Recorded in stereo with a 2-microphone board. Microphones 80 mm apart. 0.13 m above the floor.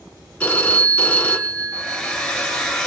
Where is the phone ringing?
20° left (ahead or behind), 1.0 m.